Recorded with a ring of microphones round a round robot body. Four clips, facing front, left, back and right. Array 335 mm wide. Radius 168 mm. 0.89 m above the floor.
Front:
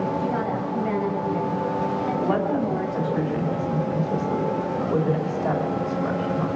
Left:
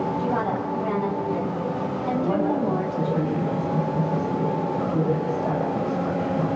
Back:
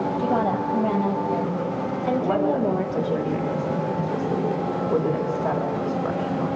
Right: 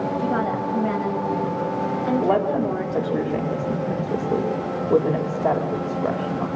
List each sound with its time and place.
0.2 s a woman speaking: 155° right, 5 m; by 3.2 s 150° right, 3.5 m
2.2 s a woman speaking: 100° right, 3.5 m